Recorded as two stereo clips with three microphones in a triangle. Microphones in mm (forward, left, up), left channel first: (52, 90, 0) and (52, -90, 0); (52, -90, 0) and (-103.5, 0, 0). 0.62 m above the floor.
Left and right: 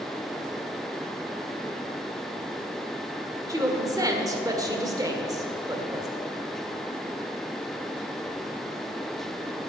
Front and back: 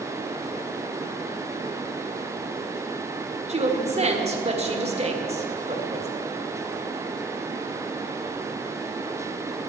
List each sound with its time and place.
3.5 s a woman speaking: 160° right, 1.6 m